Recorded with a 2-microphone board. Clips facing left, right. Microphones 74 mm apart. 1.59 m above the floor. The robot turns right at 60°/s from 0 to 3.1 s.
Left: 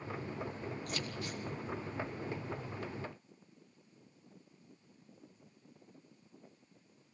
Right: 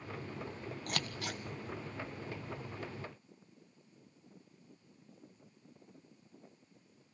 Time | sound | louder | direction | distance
0.9 | scissors | right 1 dB | 50° right (ahead or behind) | 1.3 m